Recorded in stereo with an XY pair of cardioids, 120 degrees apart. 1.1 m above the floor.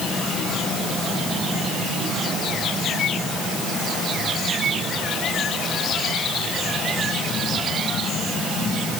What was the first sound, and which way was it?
Only background noise.